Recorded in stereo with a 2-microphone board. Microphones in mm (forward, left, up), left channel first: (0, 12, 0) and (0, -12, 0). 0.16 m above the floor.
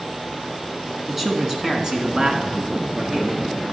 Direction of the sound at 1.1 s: 10° right (ahead or behind).